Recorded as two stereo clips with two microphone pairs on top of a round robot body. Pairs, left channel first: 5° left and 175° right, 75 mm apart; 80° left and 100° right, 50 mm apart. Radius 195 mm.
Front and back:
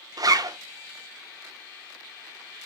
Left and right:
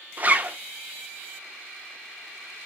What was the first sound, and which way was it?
A zipper, 155° right.